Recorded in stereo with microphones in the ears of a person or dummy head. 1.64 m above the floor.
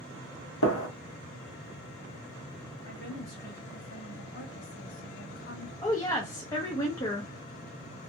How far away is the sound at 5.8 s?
About 0.6 m.